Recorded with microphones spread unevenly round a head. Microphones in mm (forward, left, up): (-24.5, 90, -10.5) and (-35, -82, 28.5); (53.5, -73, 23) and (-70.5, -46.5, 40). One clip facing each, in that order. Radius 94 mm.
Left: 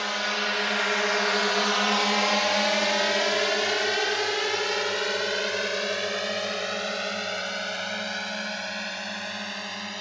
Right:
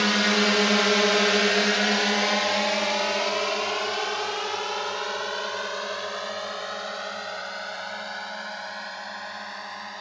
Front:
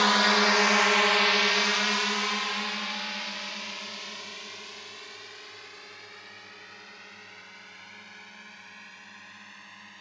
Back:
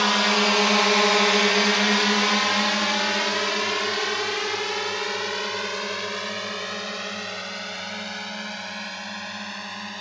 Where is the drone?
105° right; by 10.0 s 140° left.